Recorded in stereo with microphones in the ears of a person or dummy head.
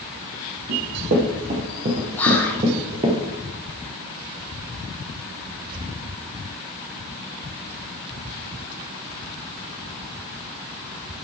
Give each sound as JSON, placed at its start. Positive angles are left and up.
{"t": 0.7, "sound": "running footsteps", "side_deg": -45, "distance_m": 2.0}
{"t": 2.2, "sound": "whispering", "side_deg": 5, "distance_m": 1.3}